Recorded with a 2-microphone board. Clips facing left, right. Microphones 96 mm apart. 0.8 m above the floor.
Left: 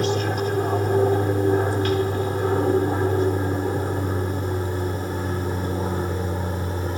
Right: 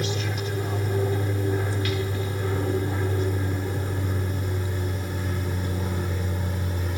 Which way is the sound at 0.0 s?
45° left (ahead or behind).